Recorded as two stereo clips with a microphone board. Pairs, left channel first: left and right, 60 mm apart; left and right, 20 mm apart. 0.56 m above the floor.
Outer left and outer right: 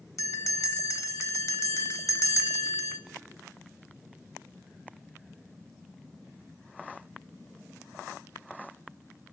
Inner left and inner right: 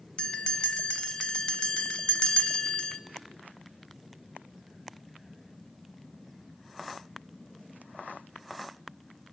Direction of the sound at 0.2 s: 60° left (ahead or behind).